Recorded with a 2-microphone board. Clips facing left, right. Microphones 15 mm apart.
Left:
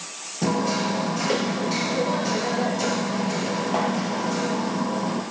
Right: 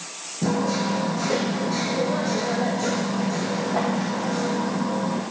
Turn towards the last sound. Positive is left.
turn(degrees=45)  # may be behind; listen again after turning